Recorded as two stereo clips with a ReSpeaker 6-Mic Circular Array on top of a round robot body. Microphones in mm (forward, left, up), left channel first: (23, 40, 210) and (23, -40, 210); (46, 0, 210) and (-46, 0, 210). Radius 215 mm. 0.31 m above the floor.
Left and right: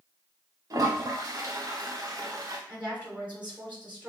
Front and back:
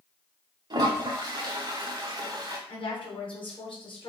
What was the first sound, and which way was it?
A toilet flushing, 140° right.